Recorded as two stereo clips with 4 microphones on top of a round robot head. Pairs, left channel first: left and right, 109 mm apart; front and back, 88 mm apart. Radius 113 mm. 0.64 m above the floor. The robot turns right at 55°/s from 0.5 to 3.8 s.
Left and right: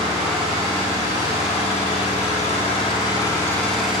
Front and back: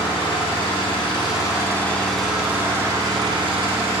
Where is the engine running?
5° right, 4.5 m; by 4.0 s straight behind, 4.5 m.